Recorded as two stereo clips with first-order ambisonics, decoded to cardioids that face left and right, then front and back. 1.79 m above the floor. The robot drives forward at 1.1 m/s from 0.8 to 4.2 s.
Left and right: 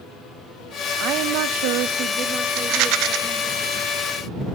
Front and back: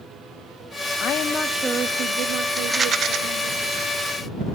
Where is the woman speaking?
45° right, 0.8 m; by 3.6 s 165° right, 2.5 m.